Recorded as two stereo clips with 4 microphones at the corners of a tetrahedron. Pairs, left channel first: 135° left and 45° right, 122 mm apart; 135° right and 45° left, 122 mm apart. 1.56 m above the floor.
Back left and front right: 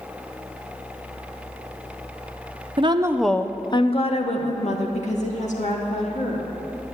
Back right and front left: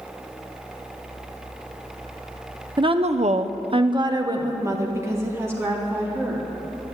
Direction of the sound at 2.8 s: Straight ahead.